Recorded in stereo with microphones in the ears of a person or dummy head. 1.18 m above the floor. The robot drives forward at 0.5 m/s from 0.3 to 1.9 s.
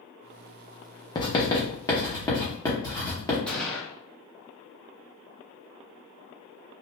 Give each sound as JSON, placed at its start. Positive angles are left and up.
{"t": 1.1, "sound": "writing", "side_deg": 20, "distance_m": 0.6}
{"t": 3.5, "sound": "a gunshot", "side_deg": 5, "distance_m": 1.1}